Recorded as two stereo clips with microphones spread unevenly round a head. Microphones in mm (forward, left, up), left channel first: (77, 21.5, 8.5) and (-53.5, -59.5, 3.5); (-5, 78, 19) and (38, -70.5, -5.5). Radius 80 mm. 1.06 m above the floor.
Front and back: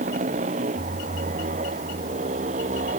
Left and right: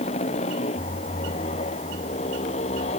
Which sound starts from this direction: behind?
A motorcycle, at 0.0 s.